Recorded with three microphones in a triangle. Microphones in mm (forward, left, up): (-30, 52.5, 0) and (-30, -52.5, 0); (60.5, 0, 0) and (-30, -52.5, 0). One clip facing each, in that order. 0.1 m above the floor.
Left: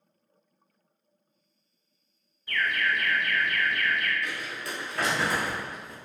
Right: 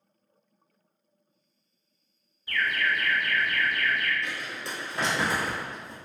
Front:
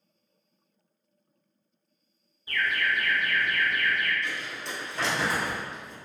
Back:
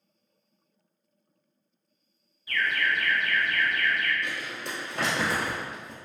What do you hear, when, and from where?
2.5 s an alarm: 10° right, 1.5 m
4.2 s crumpling: 150° right, 1.5 m